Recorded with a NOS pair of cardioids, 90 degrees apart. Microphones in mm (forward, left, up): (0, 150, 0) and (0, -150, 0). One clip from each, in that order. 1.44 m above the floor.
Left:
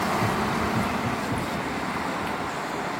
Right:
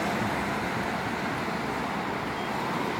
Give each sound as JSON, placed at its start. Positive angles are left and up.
{"t": 0.2, "sound": "running footsteps", "azimuth_deg": 60}